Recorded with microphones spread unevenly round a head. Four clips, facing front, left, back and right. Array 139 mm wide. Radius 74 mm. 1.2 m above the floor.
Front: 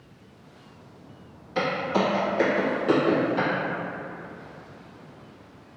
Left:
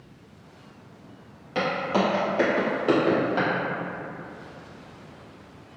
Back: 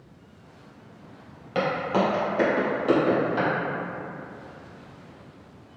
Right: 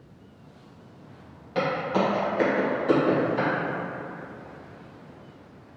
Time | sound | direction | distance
1.6 | footsteps | 165° left | 1.6 m